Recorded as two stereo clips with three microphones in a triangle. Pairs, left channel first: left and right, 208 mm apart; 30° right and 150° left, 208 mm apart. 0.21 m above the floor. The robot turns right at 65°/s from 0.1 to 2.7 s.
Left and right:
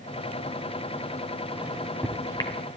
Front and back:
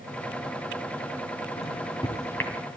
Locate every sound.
1.6 s a microwave: 15° right, 1.4 m; by 2.5 s 50° left, 1.4 m